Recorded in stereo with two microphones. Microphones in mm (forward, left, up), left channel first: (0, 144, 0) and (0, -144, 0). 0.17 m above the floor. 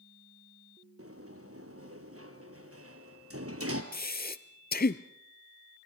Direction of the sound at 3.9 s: 35° left (ahead or behind).